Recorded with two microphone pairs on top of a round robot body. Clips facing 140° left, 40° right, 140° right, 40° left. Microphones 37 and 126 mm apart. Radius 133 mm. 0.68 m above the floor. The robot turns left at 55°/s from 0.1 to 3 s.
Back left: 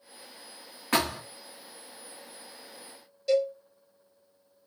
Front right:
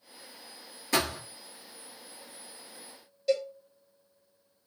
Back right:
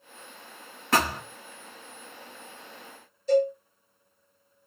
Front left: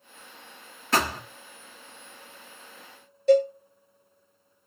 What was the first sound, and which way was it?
A thud, straight behind.